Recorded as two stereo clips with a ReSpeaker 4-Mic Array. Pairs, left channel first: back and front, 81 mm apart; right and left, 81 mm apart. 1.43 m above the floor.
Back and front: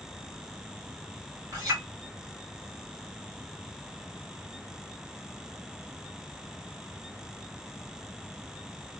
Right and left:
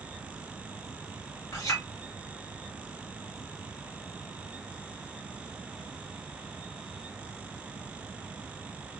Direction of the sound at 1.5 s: 40° right.